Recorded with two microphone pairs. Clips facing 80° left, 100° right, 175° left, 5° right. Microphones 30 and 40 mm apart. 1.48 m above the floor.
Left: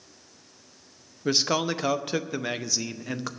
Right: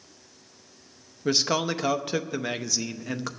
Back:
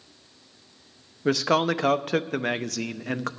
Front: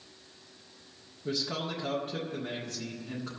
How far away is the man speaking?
About 0.6 m.